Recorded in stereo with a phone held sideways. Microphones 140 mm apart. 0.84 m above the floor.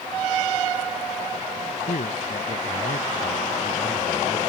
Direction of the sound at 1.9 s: 75° left (ahead or behind).